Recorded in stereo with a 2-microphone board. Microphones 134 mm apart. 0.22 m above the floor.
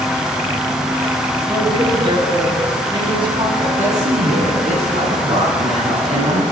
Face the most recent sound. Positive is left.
turn(degrees=-60)  # may be behind; listen again after turning